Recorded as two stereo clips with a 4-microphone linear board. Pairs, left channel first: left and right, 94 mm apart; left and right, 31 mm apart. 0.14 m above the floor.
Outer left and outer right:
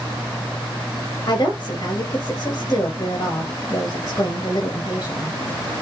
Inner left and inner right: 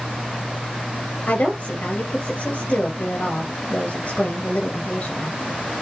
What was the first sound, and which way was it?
A woman speaking, 35° left (ahead or behind).